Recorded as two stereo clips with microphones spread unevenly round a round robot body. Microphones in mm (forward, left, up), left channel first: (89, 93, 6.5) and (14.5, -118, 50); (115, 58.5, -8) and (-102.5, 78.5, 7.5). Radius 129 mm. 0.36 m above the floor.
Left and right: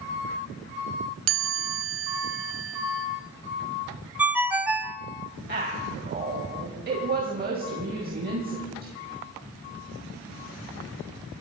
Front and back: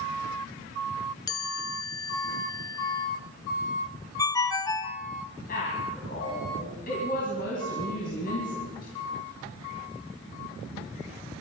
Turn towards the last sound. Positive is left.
turn(degrees=-60)